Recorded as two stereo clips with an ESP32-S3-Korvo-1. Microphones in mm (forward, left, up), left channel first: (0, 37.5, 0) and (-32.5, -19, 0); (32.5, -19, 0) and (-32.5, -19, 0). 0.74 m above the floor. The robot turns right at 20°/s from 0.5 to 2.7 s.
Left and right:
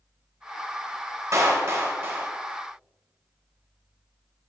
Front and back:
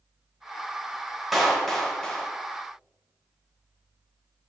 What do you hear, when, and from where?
1.3 s a clap: 90° right, 1.1 m; by 2.3 s 70° right, 1.1 m